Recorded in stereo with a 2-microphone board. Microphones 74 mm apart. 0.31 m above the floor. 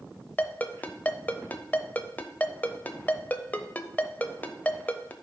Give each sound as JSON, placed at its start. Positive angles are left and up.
{"t": 0.4, "sound": "a ringtone", "side_deg": 25, "distance_m": 0.7}